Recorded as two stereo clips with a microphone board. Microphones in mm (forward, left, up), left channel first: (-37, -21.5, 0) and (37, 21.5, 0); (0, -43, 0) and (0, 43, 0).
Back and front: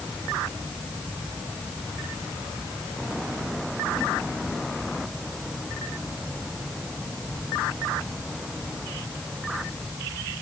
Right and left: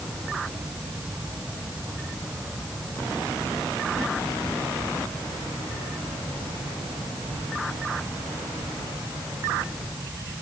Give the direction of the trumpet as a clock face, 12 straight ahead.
No trumpet in this recording.